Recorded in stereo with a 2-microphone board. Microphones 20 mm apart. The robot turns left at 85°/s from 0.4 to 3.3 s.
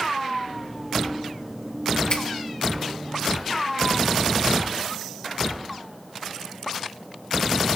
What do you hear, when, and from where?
2.1 s a finger snap: 45° left (ahead or behind), 2 m; by 2.2 s 35° left (ahead or behind), 2 m